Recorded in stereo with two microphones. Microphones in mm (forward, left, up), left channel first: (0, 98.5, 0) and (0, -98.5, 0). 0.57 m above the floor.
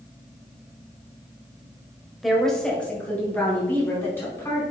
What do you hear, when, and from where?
2.2 s a woman speaking: centre (ahead or behind), 1.9 m; by 4.6 s 10° left (ahead or behind), 5 m